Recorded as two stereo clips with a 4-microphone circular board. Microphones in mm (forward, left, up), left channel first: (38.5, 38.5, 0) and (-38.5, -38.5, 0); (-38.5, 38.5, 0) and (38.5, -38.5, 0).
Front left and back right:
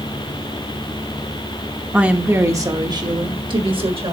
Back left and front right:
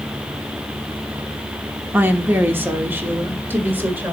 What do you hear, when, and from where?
1.9 s a woman speaking: 80° right, 0.9 m; by 4.1 s 115° right, 1.8 m